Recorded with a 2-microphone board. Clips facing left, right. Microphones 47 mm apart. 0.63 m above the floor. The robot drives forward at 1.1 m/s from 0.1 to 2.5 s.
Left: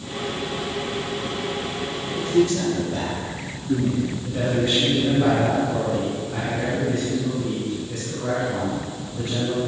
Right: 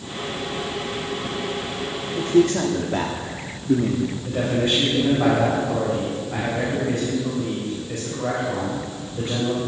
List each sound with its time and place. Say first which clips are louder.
2.1 s a man speaking: right 2 dB; 30° right (ahead or behind), 1.1 m; by 4.2 s 40° right (ahead or behind), 0.9 m
4.2 s a man speaking: right 1 dB; 35° right (ahead or behind), 3.5 m